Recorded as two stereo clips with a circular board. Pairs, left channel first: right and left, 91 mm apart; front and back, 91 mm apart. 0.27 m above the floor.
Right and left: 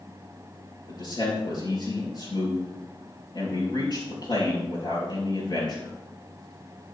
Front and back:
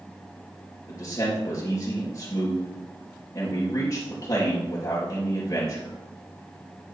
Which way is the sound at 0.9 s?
50° right.